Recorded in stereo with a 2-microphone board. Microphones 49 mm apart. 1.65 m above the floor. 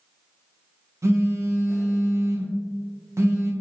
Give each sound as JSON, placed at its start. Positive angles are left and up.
{"t": 1.0, "sound": "a phone buzzing", "side_deg": -75, "distance_m": 0.6}